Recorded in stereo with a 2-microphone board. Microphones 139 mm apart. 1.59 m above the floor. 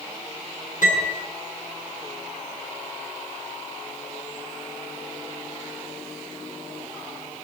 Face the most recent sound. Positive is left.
turn(degrees=75)  # may be behind; listen again after turning